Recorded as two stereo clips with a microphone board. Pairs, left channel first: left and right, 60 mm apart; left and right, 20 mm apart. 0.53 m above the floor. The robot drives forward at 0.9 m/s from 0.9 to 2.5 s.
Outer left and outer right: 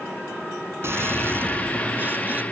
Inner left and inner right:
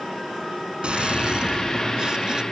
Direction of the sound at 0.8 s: 45° right (ahead or behind).